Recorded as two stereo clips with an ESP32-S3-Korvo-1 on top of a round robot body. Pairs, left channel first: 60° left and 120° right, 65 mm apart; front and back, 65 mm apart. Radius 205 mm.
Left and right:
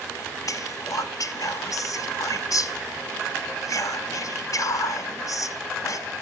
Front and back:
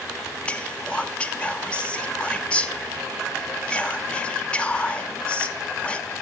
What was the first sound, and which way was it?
Whispering, 70° left.